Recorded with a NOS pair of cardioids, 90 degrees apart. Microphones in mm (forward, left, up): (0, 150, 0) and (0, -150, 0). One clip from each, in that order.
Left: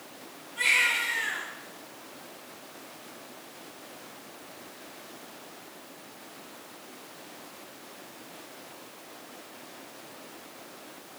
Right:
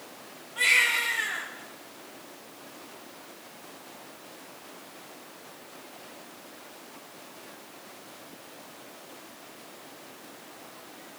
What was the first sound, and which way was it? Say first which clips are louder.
A baby crying: right 2 dB; 40° right.